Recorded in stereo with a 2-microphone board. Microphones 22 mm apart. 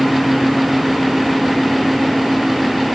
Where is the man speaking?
I don't hear a man speaking.